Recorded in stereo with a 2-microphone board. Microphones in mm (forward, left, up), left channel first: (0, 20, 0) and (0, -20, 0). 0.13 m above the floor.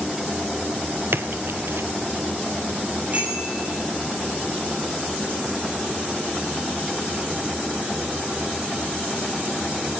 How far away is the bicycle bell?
About 8.5 m.